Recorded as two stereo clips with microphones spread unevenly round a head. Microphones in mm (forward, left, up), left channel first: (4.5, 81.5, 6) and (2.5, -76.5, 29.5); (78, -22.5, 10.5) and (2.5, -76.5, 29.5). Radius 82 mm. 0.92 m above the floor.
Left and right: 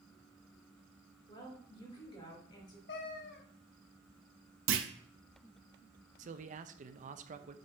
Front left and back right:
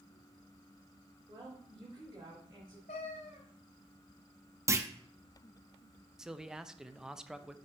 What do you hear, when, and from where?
1.3 s a woman speaking: 155° left, 3.5 m
2.9 s a cat meowing: 65° left, 1.1 m
4.7 s a clunk: 85° right, 0.7 m
6.2 s a man speaking: 50° right, 0.6 m